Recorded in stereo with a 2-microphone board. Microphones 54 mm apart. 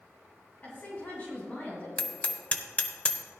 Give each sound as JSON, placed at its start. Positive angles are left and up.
{"t": 0.6, "sound": "a woman speaking", "side_deg": 35, "distance_m": 2.5}
{"t": 2.0, "sound": "hammering", "side_deg": 25, "distance_m": 0.8}